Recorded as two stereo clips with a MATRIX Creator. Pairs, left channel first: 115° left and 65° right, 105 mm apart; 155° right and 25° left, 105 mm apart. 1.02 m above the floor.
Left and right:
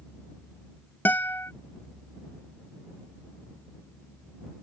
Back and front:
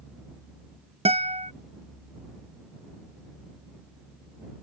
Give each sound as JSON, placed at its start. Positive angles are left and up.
{"t": 1.1, "sound": "a guitar", "azimuth_deg": 40}